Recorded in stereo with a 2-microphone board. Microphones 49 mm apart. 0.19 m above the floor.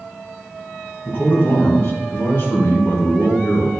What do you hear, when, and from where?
1.1 s a man speaking: 55° left (ahead or behind), 2.5 m